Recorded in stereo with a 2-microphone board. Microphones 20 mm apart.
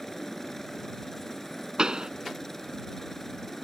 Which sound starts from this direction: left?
A helicopter, at 0.0 s.